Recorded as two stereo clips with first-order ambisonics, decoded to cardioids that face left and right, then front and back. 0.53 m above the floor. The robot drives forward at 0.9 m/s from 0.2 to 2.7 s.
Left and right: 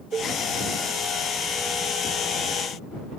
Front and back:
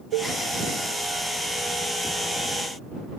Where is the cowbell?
160° right.